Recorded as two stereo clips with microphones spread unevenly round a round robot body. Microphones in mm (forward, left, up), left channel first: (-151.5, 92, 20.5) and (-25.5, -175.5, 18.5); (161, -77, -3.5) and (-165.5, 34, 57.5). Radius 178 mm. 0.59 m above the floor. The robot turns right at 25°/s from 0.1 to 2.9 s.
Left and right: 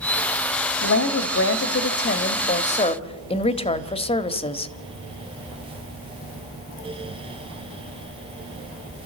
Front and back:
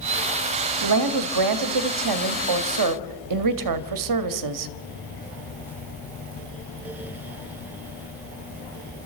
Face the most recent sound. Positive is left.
turn(degrees=180)